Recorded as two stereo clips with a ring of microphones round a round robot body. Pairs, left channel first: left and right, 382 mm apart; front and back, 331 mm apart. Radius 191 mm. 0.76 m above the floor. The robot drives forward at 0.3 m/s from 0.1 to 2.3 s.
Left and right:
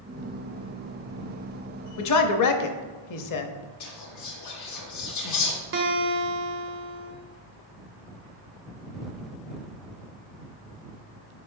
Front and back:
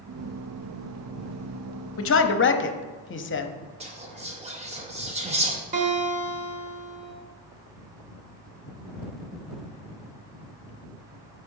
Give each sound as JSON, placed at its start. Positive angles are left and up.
{"t": 2.0, "sound": "a man speaking", "azimuth_deg": 45, "distance_m": 0.8}
{"t": 3.8, "sound": "whispering", "azimuth_deg": 115, "distance_m": 0.8}
{"t": 5.7, "sound": "a guitar", "azimuth_deg": -125, "distance_m": 1.0}